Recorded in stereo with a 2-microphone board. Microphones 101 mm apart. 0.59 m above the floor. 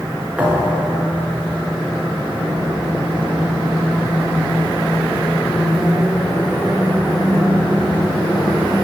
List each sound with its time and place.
0.4 s a thud: 15° right (ahead or behind), 4 m